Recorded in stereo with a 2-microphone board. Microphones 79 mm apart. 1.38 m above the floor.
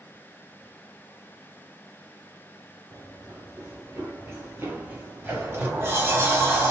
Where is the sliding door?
30° right (ahead or behind), 0.7 m.